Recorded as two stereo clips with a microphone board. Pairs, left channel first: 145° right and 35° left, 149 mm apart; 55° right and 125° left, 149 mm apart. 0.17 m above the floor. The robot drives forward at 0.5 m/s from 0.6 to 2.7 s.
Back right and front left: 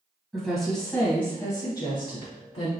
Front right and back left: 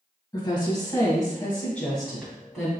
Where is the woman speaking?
60° right, 1.1 m; by 2.7 s 150° right, 1.4 m.